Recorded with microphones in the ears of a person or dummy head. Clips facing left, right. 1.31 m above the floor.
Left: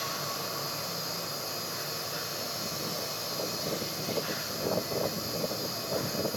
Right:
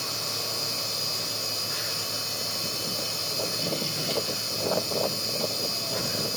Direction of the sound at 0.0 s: 40° right (ahead or behind).